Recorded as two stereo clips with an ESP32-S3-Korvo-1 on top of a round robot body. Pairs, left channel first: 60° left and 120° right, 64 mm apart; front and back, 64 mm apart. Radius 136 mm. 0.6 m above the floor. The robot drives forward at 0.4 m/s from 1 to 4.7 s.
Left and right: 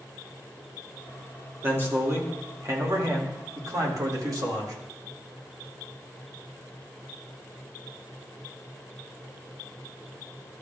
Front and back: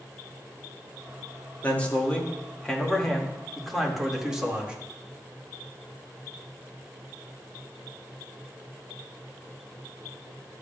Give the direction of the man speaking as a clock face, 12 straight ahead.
2 o'clock.